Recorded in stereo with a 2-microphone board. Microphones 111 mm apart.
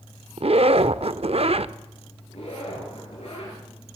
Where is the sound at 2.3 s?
70° left (ahead or behind), 7.5 m.